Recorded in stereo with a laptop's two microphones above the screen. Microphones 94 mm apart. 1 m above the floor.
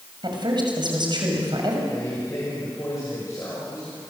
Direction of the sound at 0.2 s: 55° right (ahead or behind).